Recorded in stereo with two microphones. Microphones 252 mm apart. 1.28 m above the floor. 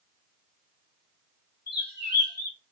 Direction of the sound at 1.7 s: 45° left (ahead or behind).